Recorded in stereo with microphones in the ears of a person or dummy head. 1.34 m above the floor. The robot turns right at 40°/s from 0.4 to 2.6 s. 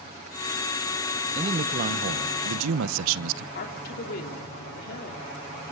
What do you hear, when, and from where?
1.4 s a man speaking: 155° right, 0.9 m; by 3.4 s 105° right, 0.9 m
3.5 s a woman speaking: 55° left (ahead or behind), 2.5 m